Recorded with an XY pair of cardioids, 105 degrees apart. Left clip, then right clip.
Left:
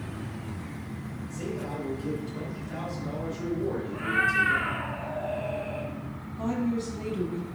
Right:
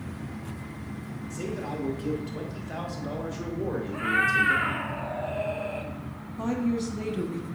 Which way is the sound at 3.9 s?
45° right.